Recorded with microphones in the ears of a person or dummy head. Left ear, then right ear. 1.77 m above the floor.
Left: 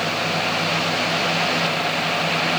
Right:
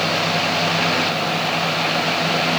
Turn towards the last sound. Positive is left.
No sound to turn to.